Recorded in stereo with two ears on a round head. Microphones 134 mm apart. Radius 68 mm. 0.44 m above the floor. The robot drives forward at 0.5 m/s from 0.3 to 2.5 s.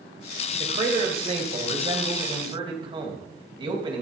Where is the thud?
I don't hear a thud.